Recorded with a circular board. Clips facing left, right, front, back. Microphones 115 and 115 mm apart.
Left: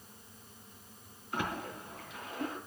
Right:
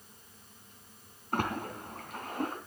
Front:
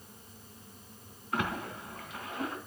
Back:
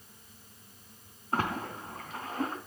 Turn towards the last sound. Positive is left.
turn(degrees=-125)